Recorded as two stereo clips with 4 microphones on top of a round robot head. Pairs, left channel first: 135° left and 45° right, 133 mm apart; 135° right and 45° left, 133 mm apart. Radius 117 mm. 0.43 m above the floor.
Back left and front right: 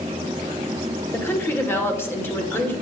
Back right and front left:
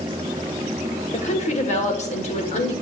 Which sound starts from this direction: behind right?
A woman speaking, at 1.1 s.